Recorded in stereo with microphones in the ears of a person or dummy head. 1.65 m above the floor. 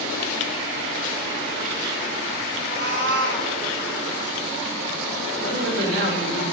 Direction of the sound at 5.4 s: 70° right (ahead or behind).